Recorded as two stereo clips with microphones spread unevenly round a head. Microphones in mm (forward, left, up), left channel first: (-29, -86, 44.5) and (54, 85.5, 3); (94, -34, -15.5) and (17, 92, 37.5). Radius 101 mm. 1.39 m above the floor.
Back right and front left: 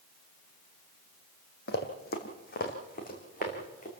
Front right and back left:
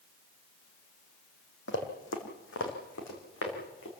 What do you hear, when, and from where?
1.7 s running footsteps: 95° right, 2.5 m; by 3.9 s 70° right, 5.5 m